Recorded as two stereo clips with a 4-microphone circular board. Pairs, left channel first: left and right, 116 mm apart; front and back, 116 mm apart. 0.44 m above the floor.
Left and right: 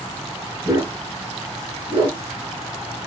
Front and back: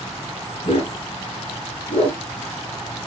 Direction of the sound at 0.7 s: 40° right.